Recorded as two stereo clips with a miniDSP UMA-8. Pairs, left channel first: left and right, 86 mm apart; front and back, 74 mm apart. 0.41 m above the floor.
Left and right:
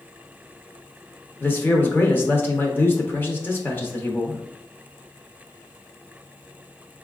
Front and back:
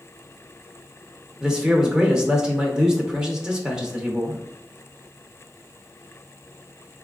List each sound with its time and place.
1.4 s a man speaking: 115° left, 0.8 m